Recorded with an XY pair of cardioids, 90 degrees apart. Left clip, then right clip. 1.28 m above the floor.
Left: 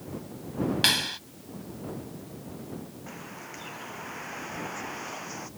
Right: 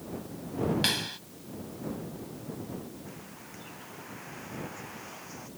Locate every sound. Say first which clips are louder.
0.8 s a clap: left 9 dB; 45° left
3.1 s a bird: left 5 dB; 55° left